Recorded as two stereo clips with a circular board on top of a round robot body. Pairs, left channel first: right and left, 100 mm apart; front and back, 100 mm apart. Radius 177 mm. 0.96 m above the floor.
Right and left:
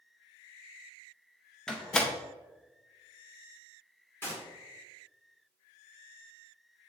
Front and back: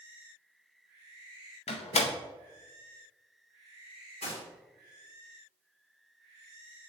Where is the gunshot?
20° right, 2 m.